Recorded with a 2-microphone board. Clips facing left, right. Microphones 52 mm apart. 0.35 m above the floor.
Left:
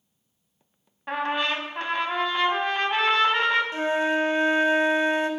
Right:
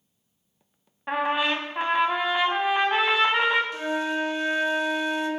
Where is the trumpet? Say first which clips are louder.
Right 2 dB; 10° right (ahead or behind), 0.8 m.